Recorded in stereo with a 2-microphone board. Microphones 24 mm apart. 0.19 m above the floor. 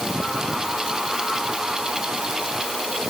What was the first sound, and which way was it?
Only background noise.